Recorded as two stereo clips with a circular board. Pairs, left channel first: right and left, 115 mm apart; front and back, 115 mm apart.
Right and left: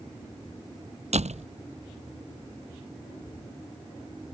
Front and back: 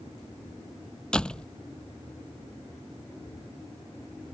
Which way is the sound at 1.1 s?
80° left.